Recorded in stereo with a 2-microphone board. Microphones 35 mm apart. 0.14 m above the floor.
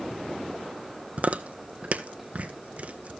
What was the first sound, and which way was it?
Chewing, 45° right (ahead or behind).